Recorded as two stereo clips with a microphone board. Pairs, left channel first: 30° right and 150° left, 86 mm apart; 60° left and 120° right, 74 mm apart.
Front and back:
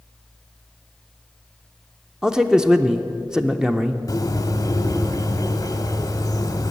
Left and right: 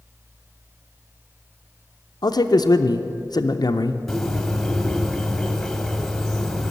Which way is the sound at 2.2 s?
70° left.